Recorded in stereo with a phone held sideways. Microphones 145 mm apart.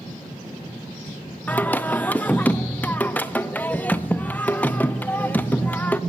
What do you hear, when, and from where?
1.5 s singing: 10° left (ahead or behind), 0.5 m